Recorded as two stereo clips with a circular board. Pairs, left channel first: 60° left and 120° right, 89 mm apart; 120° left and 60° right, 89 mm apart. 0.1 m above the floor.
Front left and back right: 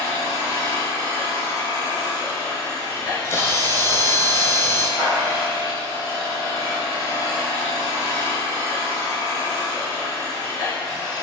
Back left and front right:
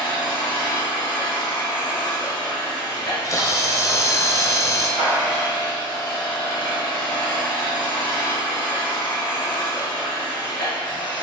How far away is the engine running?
About 1.5 m.